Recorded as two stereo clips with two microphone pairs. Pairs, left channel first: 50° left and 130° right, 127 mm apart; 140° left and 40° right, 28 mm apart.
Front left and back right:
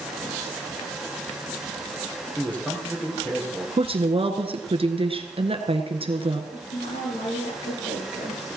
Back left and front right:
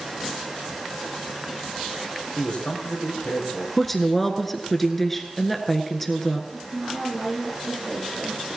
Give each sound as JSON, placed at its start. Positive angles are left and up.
{"t": 2.4, "sound": "a man speaking", "azimuth_deg": 125, "distance_m": 4.0}
{"t": 3.8, "sound": "a woman speaking", "azimuth_deg": -140, "distance_m": 1.5}
{"t": 6.5, "sound": "a woman speaking", "azimuth_deg": 30, "distance_m": 9.0}